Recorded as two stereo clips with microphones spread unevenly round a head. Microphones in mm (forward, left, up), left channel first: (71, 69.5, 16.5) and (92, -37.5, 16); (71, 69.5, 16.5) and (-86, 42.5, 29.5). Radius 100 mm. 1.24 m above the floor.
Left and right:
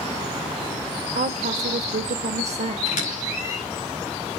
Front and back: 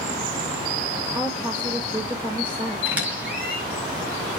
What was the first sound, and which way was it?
A woman speaking, 85° right.